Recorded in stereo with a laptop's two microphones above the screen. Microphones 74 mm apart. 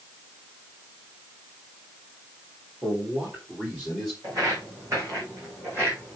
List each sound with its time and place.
2.8 s a man speaking: 40° right (ahead or behind), 3.5 m; by 4.1 s 10° right (ahead or behind), 2.5 m
4.2 s footsteps: 55° right (ahead or behind), 3.5 m; by 6.2 s 30° right (ahead or behind), 3 m